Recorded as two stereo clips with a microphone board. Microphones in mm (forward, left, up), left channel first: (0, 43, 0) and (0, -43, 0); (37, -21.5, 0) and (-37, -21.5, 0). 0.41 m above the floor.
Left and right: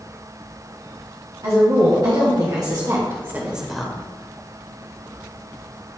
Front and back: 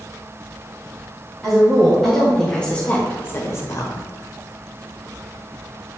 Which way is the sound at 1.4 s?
95° right.